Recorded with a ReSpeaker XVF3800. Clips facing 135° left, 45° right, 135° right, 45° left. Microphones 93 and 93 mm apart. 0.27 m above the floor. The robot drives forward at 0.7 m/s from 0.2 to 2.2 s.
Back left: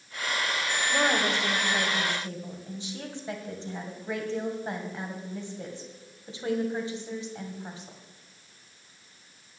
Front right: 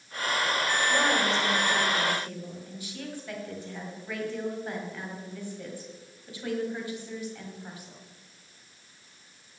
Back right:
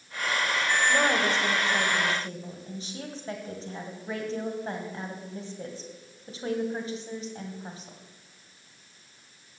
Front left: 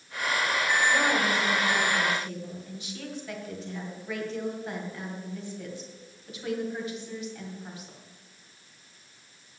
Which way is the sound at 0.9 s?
160° right.